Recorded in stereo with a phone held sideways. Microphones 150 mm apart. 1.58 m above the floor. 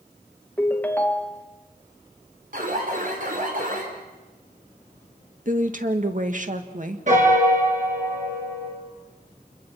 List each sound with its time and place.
0.6 s a ringtone: 10° left (ahead or behind), 1.1 m
2.5 s an alarm: 60° right (ahead or behind), 4.5 m
5.5 s a woman speaking: 55° right (ahead or behind), 2.0 m
7.1 s a piano: 55° right (ahead or behind), 5.5 m